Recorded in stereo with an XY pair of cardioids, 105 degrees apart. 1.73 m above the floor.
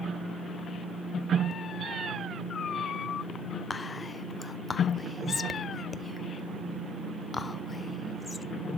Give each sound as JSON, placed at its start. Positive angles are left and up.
{"t": 3.7, "sound": "whispering", "azimuth_deg": 30, "distance_m": 0.9}